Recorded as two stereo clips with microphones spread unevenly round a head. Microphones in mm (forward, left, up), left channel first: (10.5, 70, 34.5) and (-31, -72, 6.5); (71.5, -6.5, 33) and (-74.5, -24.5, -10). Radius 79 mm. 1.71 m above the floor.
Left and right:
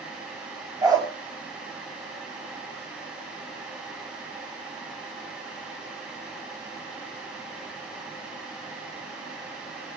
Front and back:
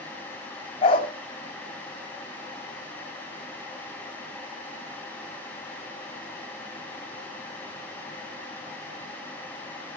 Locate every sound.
0.8 s a dog barking: 35° right, 3 m